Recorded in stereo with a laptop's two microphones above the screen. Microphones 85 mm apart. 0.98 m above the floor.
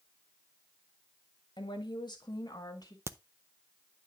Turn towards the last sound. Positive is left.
turn(degrees=-30)  # may be behind; listen again after turning